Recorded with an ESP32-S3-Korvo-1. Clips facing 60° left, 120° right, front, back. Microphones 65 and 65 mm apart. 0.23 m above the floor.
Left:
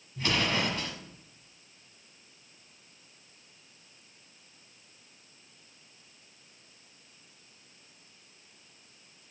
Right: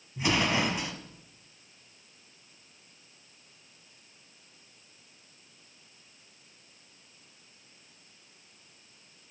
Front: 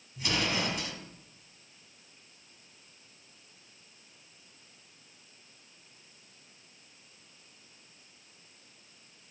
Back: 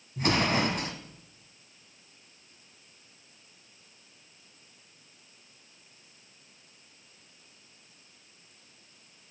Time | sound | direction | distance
0.2 | an explosion | 170° left | 1.8 m